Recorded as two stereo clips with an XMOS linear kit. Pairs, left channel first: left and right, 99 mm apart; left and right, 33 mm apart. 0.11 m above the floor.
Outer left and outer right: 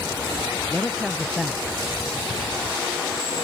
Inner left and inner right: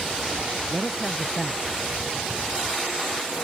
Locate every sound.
0.7 s a man speaking: 5° right (ahead or behind)